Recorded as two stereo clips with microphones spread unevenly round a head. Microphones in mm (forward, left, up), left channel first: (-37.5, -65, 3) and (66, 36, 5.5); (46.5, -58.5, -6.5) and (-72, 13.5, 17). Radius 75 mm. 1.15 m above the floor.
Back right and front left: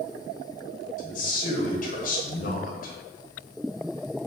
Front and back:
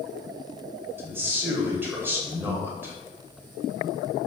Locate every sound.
1.0 s a man speaking: 135° right, 1.2 m